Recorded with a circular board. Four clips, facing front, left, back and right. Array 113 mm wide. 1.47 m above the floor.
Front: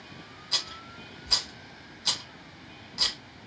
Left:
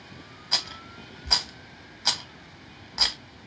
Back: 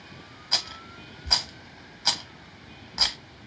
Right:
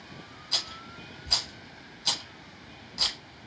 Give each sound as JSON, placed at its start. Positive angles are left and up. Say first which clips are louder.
{"t": 0.5, "sound": "a rattle", "louder": "left 4 dB, back 4 dB", "azimuth_deg": 130, "distance_m": 1.0}